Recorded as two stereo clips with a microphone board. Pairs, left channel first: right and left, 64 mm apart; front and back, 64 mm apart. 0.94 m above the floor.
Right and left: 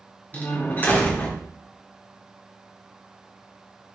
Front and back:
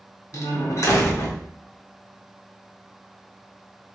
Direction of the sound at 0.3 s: 30° right.